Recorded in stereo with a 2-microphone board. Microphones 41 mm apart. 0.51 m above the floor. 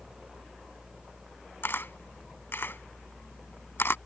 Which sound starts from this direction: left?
A camera shutter, at 1.6 s.